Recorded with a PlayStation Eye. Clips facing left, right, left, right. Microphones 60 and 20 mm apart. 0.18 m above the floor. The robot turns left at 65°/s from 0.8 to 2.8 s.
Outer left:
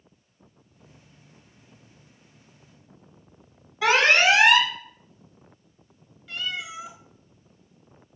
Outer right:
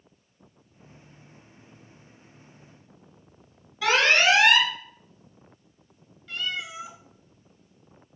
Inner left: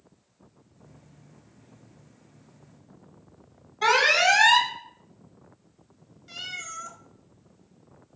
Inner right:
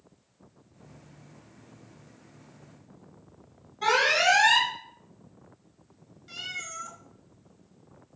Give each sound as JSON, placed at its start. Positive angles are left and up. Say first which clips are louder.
{"t": 3.8, "sound": "an alarm", "louder": "outer left 2 dB, inner left 3 dB", "side_deg": 25, "distance_m": 1.0}
{"t": 6.3, "sound": "a cat meowing", "louder": "even, inner left 1 dB", "side_deg": 5, "distance_m": 0.5}